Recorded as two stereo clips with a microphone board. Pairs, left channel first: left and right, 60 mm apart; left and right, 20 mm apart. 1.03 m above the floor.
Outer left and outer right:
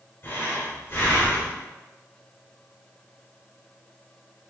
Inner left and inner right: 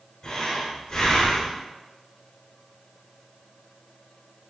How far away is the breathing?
About 1.6 m.